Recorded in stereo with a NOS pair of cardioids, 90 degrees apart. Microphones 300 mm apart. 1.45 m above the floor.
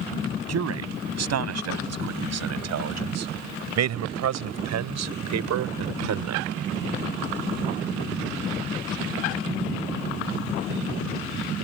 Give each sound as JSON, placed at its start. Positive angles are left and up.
{"t": 0.5, "sound": "a man speaking", "azimuth_deg": -55}